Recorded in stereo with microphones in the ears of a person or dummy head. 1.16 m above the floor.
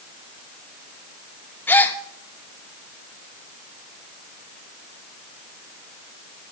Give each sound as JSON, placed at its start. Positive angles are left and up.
{"t": 1.7, "sound": "a gasp", "side_deg": 5, "distance_m": 0.7}